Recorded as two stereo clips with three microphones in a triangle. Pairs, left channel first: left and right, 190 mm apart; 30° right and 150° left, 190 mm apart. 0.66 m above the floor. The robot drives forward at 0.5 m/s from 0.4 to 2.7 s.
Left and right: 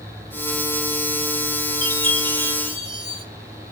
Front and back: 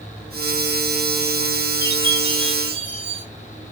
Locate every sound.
1.8 s a chime: 70° right, 6 m